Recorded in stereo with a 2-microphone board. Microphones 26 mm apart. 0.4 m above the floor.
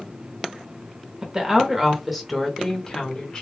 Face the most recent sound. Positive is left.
turn(degrees=30)  # may be behind; listen again after turning